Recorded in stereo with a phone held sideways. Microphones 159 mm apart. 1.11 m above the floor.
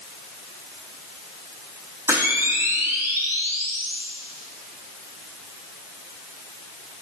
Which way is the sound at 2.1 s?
20° right (ahead or behind).